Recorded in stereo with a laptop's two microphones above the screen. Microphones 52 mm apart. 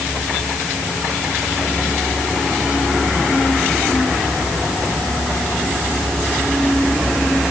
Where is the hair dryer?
No hair dryer in this recording.